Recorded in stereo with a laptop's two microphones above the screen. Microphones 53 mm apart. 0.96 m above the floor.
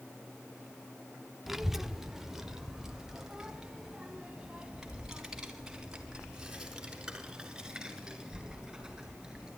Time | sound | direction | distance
1.5 | a child speaking | 5° right (ahead or behind) | 0.8 m